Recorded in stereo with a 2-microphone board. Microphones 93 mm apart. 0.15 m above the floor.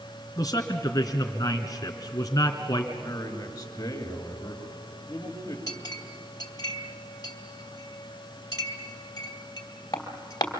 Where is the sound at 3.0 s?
35° left (ahead or behind), 2.5 m.